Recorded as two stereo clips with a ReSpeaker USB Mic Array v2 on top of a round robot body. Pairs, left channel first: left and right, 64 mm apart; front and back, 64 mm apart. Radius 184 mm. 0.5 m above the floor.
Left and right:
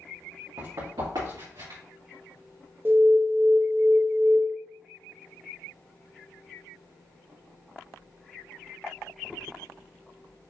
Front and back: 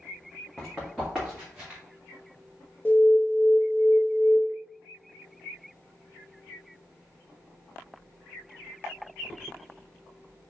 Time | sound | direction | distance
0.6 | running footsteps | 85° right | 2 m
2.9 | an alarm | 50° right | 0.7 m